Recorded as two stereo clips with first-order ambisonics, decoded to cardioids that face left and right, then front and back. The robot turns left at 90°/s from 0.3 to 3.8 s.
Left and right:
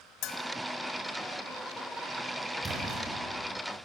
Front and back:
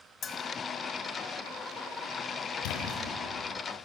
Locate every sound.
0.2 s a bell: 60° left, 1.8 m; by 0.4 s 50° left, 1.8 m
2.6 s a splash: 5° right, 5.5 m; by 3.0 s 45° right, 5.5 m